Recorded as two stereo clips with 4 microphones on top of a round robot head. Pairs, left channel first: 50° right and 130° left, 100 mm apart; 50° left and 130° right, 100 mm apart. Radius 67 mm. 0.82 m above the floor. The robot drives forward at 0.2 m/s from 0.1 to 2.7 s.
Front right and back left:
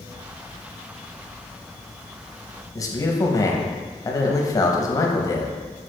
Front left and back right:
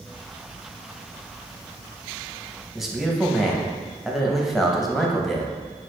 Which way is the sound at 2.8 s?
45° right.